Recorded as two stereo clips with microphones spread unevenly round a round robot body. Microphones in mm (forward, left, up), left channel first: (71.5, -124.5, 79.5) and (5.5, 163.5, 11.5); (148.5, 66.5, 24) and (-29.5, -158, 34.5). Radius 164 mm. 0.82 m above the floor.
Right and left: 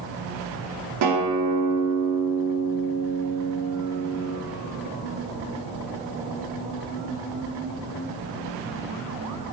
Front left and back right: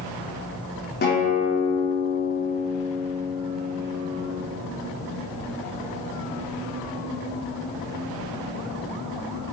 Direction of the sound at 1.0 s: 110° left.